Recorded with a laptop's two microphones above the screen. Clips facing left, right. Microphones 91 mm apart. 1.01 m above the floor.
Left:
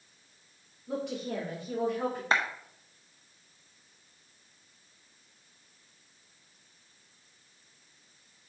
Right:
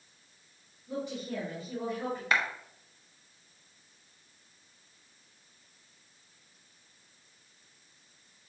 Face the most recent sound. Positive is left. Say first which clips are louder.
# left 1 dB
turn(degrees=30)  # may be behind; listen again after turning